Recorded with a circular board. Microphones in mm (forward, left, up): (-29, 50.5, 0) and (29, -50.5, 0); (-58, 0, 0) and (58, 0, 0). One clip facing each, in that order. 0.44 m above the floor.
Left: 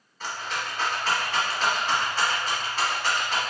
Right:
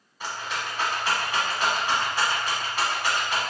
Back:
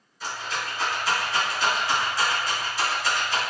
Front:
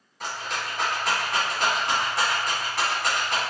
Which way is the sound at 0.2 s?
15° left.